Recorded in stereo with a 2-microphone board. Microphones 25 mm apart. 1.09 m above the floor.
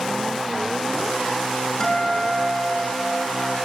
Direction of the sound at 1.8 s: 30° left (ahead or behind).